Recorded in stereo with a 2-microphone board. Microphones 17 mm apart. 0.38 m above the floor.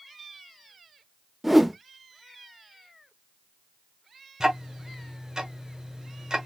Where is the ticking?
35° right (ahead or behind), 1.4 m.